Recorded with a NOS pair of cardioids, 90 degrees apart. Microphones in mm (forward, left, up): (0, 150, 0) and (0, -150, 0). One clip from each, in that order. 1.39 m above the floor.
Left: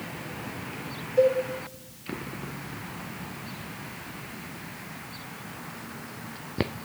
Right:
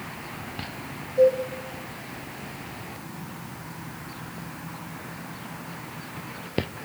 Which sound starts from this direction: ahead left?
A cowbell, at 1.2 s.